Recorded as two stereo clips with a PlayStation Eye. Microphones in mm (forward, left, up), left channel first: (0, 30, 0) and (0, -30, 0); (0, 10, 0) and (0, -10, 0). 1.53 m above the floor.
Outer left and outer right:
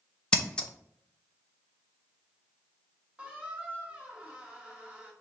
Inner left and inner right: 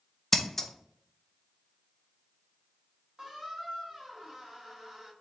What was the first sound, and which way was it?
Scissors, 15° left (ahead or behind).